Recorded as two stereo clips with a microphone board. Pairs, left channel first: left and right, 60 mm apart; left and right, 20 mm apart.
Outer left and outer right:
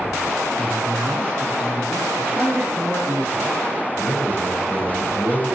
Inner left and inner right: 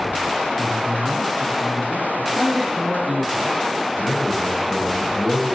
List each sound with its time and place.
0.6 s a man speaking: 15° right (ahead or behind), 1.6 m
2.2 s a man speaking: 35° right (ahead or behind), 2.5 m
4.0 s a man speaking: 55° left (ahead or behind), 6.5 m